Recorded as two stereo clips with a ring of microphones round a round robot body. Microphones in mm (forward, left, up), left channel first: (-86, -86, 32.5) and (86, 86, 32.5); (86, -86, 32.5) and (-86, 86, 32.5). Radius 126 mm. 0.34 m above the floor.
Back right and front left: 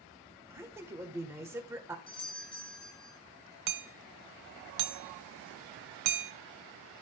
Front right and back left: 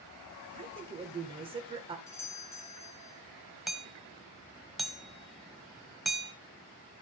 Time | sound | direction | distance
0.5 | a woman speaking | 110° left | 1.3 m
2.1 | a doorbell | 105° right | 1.3 m
3.7 | hammering | 45° left | 0.7 m